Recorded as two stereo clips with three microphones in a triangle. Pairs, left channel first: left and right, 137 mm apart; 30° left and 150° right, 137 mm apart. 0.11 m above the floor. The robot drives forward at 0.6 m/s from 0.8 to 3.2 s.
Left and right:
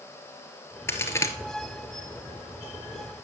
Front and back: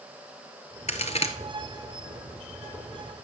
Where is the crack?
25° left, 1.3 m; by 1.3 s 30° left, 1.1 m.